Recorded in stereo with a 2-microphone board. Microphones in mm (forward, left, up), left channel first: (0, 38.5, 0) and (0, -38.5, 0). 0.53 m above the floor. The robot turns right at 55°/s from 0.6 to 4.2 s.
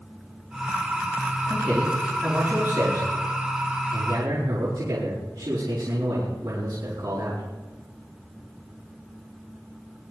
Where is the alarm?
No alarm in this recording.